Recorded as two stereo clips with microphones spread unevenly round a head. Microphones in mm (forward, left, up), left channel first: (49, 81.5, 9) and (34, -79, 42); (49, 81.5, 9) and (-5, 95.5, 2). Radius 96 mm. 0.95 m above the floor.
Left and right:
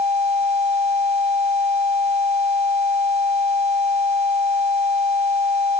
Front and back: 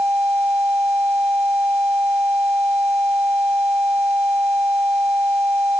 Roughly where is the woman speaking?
I don't hear a woman speaking.